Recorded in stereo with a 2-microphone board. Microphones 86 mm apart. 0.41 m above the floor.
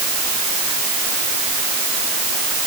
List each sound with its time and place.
Only background noise.